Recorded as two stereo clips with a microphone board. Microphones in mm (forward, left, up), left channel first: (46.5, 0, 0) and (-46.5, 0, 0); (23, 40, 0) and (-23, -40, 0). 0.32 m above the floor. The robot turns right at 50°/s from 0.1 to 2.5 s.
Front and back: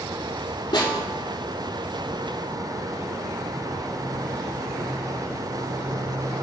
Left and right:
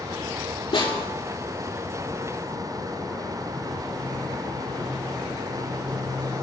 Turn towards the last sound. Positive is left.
turn(degrees=125)